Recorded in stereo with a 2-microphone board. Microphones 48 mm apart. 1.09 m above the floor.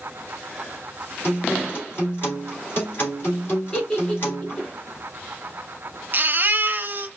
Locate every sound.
1.2 s a guitar: 50° left (ahead or behind), 3 m
3.7 s a giggle: 20° left (ahead or behind), 3 m
6.1 s a baby crying: 45° right (ahead or behind), 0.8 m